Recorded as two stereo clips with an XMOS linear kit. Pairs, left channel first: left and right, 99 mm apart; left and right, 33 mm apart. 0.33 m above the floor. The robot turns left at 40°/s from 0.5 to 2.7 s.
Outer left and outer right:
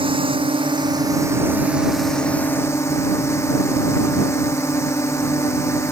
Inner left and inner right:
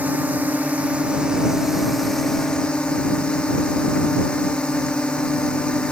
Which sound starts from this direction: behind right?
A drone, at 0.0 s.